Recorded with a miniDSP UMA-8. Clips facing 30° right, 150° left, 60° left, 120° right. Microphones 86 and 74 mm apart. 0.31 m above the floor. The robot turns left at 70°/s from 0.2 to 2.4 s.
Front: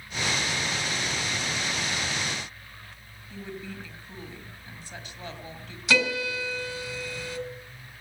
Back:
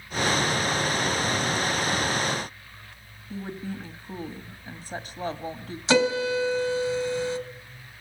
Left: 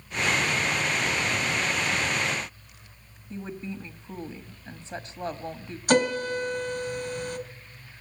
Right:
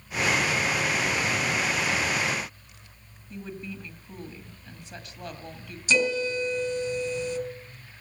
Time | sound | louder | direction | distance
3.3 | a woman speaking | back 4 dB, left 2 dB | 115° left | 1.6 m
5.9 | a piano | back 5 dB, left 2 dB | 90° left | 2 m